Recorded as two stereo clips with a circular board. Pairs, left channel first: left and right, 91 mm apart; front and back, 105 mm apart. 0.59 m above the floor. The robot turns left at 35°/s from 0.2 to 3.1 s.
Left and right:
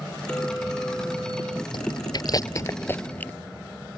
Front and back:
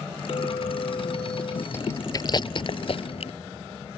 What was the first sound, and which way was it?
A clink, 20° left.